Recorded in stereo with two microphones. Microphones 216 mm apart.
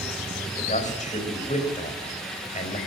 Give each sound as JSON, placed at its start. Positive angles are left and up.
{"t": 0.6, "sound": "a man speaking", "side_deg": 35, "distance_m": 4.5}